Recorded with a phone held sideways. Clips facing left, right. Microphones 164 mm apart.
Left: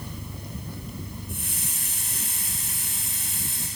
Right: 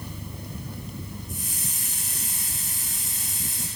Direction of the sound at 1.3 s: 60° left (ahead or behind).